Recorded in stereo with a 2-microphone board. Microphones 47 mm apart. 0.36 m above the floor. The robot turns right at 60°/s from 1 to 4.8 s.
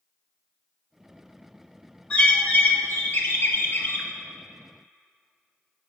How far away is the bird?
About 1.0 m.